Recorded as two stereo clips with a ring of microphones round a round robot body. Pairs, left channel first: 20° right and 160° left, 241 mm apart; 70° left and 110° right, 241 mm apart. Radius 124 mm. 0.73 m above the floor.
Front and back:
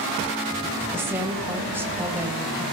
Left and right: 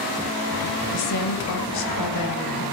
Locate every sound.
0.9 s a woman speaking: 75° left, 3 m